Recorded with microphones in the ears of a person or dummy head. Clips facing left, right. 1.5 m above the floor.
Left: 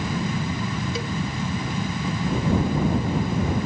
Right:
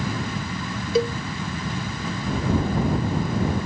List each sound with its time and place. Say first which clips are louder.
0.9 s a cowbell: right 8 dB; 40° right (ahead or behind)